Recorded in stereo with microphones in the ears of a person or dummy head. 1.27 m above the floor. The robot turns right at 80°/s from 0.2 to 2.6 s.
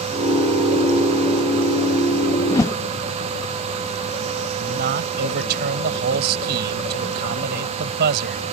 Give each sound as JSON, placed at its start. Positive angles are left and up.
{"t": 2.5, "sound": "a whoosh", "side_deg": 20}
{"t": 4.6, "sound": "a man speaking", "side_deg": -50}